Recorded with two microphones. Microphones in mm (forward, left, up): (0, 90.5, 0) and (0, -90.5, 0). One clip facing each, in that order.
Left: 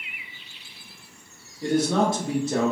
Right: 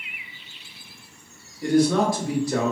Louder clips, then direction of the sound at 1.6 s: Right 3 dB; 25° left (ahead or behind).